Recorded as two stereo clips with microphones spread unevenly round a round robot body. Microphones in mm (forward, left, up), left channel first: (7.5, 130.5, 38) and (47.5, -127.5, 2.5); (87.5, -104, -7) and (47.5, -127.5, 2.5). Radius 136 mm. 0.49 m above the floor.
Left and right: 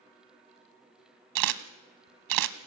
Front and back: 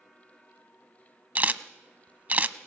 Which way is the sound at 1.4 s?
95° right.